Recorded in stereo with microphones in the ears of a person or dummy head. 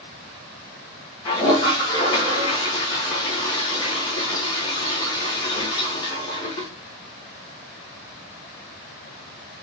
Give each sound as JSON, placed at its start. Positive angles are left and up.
{"t": 1.2, "sound": "a toilet flushing", "side_deg": 25, "distance_m": 1.0}